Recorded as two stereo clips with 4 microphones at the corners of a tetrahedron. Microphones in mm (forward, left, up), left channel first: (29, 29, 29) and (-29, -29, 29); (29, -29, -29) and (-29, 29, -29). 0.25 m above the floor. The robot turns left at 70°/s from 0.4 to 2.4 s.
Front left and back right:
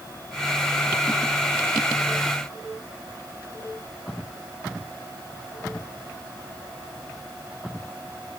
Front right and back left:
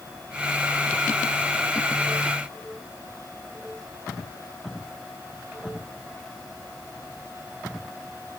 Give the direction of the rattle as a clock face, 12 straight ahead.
I don't hear a rattle.